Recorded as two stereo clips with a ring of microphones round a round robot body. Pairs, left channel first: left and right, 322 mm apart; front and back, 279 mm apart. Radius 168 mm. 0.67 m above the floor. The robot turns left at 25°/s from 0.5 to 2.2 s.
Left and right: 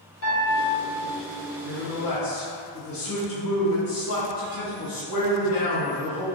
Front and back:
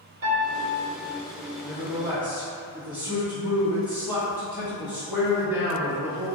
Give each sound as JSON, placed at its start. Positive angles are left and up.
{"t": 0.2, "sound": "a piano", "azimuth_deg": 135, "distance_m": 1.2}
{"t": 1.6, "sound": "a man speaking", "azimuth_deg": 110, "distance_m": 1.1}